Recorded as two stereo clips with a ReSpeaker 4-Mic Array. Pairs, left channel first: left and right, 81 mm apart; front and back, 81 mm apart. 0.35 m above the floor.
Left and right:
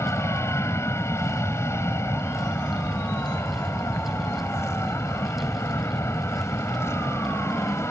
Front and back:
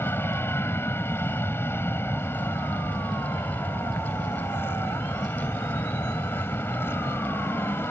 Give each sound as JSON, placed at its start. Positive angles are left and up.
{"t": 0.0, "sound": "an aircraft", "azimuth_deg": 50}